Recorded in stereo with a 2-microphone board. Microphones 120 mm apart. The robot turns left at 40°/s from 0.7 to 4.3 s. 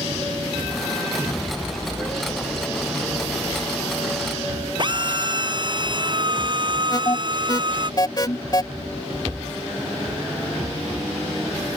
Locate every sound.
4.8 s a drill: 40° right (ahead or behind)
6.9 s an alarm: 35° left (ahead or behind)